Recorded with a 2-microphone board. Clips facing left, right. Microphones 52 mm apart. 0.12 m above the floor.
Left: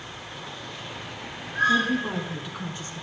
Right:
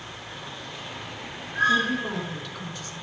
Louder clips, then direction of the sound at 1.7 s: Left 1 dB; 5° right (ahead or behind).